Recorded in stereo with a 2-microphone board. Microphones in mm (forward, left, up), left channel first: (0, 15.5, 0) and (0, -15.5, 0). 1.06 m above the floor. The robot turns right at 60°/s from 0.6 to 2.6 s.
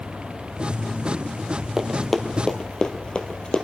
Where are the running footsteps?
10° right (ahead or behind), 1.3 m; by 3.6 s 35° left (ahead or behind), 1.3 m.